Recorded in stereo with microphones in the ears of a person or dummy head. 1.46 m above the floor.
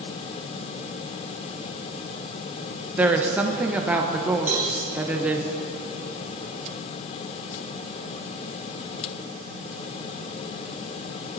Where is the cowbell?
40° right (ahead or behind), 3 m.